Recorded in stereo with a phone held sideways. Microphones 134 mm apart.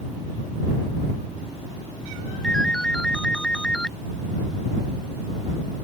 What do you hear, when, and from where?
2.4 s a ringtone: 5° left (ahead or behind)